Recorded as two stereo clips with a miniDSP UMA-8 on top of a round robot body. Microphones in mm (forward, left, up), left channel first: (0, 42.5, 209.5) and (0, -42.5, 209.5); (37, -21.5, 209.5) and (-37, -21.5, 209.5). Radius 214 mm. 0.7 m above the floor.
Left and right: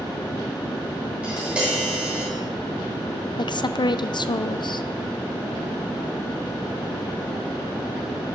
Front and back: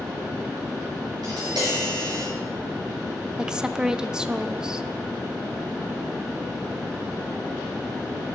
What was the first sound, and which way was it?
Tapping, 160° right.